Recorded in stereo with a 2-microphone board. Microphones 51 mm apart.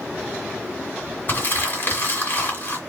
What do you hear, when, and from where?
1.3 s crumpling: 45° left (ahead or behind), 2.0 m